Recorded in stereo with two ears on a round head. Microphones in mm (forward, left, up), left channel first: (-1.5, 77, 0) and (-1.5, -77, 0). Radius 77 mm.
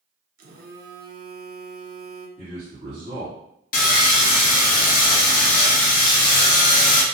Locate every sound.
0.4 s a phone buzzing: 55° right (ahead or behind), 0.6 m
2.4 s a man speaking: 45° right (ahead or behind), 1.6 m
3.7 s sawing: 50° left (ahead or behind), 0.6 m